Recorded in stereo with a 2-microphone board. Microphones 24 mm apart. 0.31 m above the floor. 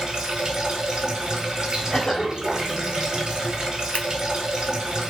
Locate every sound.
0.0 s running water: 25° right (ahead or behind), 1.6 m
1.9 s a cough: 25° left (ahead or behind), 1.2 m
3.9 s scissors: 70° left (ahead or behind), 0.7 m